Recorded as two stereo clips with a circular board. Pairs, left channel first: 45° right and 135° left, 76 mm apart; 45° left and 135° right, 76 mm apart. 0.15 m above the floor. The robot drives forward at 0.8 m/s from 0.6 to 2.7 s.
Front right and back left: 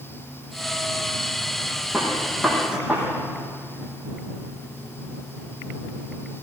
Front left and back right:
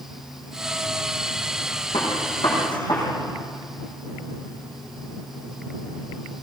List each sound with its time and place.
1.9 s a gunshot: 50° left, 7 m; by 3.0 s 55° left, 7 m